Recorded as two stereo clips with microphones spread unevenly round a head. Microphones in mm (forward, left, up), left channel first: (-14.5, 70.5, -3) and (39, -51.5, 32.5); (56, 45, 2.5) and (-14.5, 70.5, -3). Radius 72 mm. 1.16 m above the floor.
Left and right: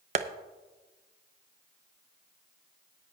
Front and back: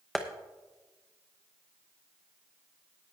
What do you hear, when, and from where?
0.1 s tapping: 110° right, 0.5 m